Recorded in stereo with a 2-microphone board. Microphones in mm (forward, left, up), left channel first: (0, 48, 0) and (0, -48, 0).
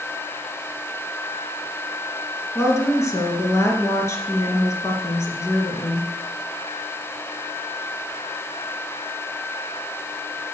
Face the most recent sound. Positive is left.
turn(degrees=30)  # may be behind; listen again after turning